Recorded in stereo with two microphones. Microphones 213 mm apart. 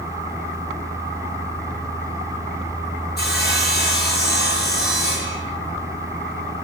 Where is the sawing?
50° left (ahead or behind), 9 m.